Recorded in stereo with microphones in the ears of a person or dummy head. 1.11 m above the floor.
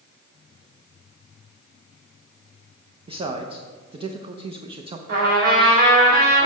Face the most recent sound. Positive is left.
turn(degrees=-55)  # may be behind; listen again after turning